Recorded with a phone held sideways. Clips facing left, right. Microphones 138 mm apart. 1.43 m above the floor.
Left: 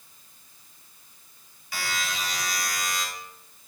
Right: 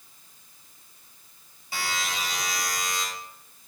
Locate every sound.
1.7 s a buzzer: 30° right (ahead or behind), 3 m